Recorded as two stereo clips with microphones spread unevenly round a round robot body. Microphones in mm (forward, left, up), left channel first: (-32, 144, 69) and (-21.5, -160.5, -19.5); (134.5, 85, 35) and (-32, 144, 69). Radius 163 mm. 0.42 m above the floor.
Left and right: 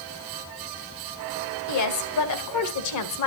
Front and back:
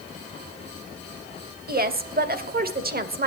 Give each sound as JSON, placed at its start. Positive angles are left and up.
{"t": 1.7, "sound": "a woman speaking", "azimuth_deg": 125, "distance_m": 2.0}